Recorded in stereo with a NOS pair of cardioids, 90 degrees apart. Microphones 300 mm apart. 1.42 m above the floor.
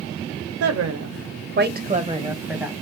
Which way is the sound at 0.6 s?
65° right.